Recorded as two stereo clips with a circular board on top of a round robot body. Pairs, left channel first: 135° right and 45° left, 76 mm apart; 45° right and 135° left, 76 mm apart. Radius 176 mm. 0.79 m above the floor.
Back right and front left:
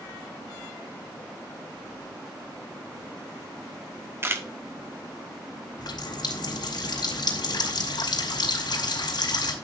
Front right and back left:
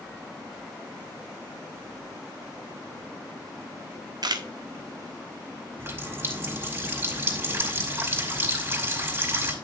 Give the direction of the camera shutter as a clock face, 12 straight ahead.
9 o'clock.